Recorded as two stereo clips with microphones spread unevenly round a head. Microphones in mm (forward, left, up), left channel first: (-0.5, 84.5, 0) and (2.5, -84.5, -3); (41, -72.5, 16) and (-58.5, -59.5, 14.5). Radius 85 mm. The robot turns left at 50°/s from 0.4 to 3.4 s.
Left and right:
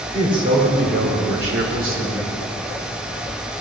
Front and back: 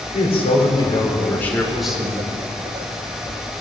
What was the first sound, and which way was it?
A man speaking, 25° right.